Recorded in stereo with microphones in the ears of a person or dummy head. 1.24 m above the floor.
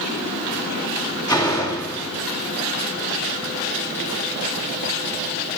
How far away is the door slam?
About 1.9 m.